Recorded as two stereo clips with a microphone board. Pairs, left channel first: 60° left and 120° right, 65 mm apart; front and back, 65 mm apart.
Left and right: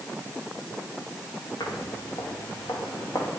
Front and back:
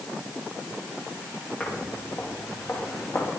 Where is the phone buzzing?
No phone buzzing in this recording.